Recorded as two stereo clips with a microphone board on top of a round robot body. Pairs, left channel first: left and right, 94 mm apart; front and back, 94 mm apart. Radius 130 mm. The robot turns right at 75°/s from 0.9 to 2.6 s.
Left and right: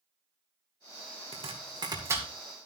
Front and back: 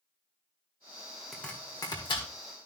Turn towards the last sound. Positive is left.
turn(degrees=5)